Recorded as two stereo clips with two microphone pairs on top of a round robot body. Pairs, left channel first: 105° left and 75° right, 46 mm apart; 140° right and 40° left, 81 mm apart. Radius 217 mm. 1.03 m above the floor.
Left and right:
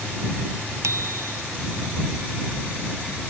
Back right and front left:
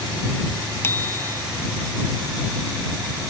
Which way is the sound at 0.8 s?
80° right.